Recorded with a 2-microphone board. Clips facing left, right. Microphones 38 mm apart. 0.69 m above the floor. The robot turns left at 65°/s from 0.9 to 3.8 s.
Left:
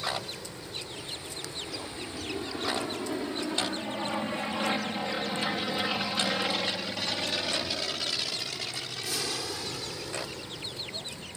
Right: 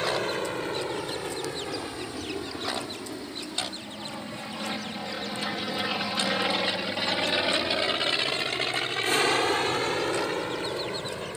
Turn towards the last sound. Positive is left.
turn(degrees=-60)  # may be behind; listen again after turning